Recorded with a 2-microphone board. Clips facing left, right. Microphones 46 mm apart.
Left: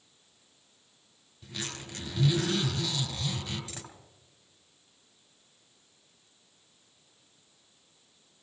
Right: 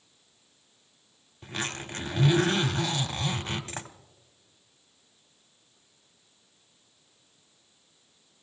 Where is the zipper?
45° right (ahead or behind), 1.3 m.